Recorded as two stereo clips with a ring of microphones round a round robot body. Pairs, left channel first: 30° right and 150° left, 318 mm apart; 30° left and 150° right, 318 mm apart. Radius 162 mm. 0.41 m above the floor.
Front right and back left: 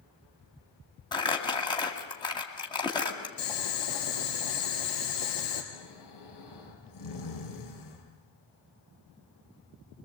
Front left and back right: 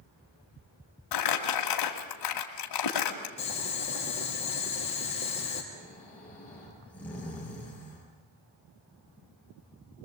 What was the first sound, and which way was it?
Crumpling, 45° left.